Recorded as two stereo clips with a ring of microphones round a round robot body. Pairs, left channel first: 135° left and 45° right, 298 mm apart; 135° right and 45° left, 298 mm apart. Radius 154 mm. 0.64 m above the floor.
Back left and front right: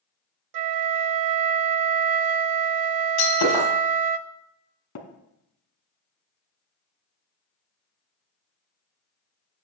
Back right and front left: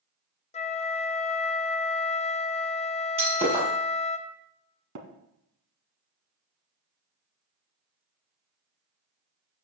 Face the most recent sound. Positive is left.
turn(degrees=90)